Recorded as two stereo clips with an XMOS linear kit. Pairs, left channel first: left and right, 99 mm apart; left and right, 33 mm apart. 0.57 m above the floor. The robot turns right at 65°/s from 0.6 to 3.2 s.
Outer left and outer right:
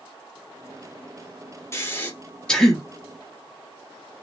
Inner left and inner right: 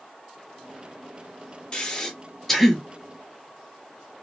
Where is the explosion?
I don't hear an explosion.